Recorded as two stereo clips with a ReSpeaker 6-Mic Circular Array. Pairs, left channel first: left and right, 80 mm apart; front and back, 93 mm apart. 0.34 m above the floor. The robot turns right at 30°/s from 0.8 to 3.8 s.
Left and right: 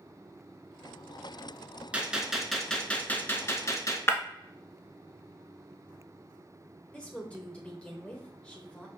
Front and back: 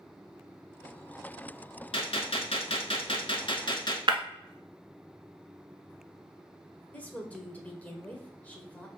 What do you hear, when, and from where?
1.9 s a gunshot: 15° right, 0.8 m; by 4.0 s 40° left, 0.8 m
4.1 s breaking glass: 145° left, 0.8 m
6.9 s a woman speaking: 40° left, 0.9 m